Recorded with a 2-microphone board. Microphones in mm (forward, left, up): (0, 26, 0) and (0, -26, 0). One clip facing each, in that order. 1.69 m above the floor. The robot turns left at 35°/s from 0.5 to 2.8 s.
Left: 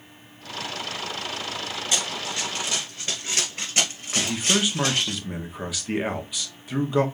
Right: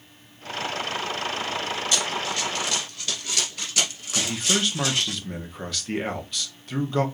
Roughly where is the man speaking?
Centre.